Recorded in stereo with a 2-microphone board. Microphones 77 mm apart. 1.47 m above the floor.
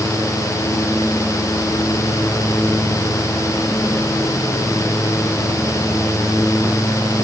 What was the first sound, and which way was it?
Only background noise.